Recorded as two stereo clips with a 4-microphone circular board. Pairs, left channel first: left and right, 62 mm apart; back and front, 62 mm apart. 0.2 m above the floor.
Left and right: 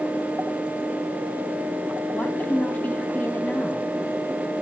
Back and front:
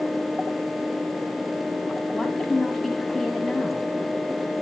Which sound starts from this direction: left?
A woman speaking, at 2.1 s.